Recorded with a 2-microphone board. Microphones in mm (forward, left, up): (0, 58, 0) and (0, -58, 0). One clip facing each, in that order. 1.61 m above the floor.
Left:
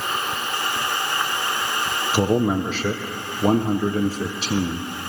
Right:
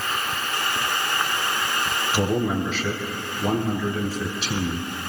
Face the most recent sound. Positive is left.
turn(degrees=40)  # may be behind; listen again after turning